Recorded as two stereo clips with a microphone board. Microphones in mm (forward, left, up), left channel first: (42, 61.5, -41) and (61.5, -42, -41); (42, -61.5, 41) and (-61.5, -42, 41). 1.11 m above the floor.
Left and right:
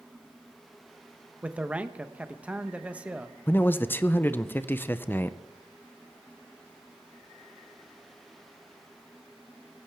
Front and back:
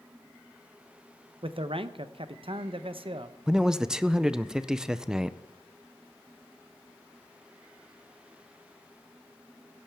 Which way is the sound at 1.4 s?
155° right.